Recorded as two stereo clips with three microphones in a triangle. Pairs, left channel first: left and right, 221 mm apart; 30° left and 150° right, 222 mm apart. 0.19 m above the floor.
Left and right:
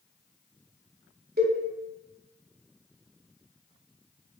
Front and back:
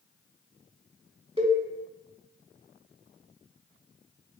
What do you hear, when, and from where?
1.4 s a cowbell: 95° right, 1.0 m